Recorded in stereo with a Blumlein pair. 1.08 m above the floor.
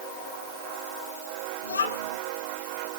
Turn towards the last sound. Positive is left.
turn(degrees=70)